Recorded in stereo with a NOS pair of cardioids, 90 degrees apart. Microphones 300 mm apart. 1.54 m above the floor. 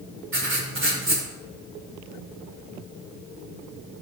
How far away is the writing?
About 5.5 m.